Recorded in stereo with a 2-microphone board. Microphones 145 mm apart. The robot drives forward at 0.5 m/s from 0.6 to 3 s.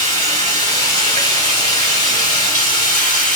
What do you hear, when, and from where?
0.0 s running water: 35° left (ahead or behind), 1.7 m; by 3.4 s 60° left (ahead or behind), 1.1 m